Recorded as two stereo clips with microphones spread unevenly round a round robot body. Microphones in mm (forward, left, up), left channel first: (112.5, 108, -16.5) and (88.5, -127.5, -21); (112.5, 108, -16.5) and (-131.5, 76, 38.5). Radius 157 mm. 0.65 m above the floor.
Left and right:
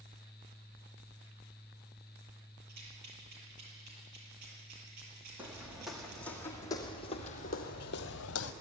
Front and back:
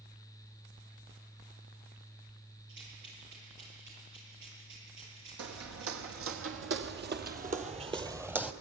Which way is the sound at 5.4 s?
Straight behind.